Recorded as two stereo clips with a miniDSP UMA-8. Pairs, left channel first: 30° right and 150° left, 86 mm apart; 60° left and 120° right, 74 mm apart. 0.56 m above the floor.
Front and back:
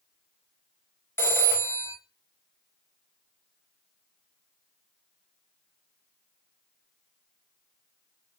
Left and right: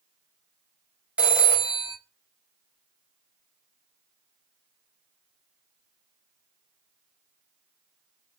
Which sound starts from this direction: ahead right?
A phone ringing, at 1.2 s.